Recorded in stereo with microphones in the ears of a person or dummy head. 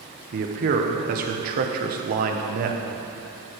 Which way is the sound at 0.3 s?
50° right (ahead or behind).